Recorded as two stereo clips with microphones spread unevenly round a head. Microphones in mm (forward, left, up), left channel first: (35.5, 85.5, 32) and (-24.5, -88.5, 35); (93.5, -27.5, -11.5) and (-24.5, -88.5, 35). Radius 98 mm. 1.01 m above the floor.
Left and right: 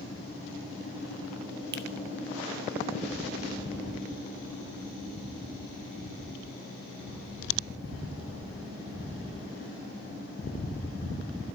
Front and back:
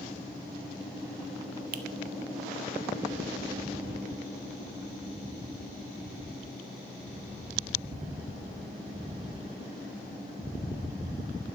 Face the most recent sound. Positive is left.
turn(degrees=-145)